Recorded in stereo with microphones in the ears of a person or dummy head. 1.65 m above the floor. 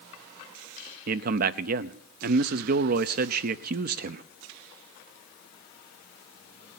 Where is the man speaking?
55° right (ahead or behind), 0.6 m.